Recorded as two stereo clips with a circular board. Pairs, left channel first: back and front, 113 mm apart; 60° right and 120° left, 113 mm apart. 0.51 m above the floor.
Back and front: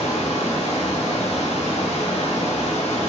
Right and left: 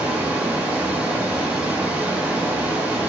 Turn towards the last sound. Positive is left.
turn(degrees=-165)